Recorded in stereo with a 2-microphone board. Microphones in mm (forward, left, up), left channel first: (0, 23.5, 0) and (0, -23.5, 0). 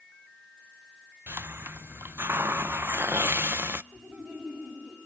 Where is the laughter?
35° right (ahead or behind), 8 m.